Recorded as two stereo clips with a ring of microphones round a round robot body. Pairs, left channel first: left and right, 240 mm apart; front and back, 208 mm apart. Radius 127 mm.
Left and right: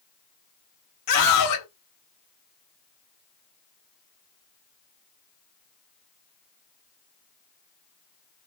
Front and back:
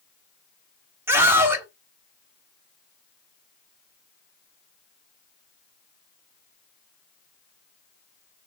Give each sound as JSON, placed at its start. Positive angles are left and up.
{"t": 1.1, "sound": "a scream", "azimuth_deg": 100, "distance_m": 3.5}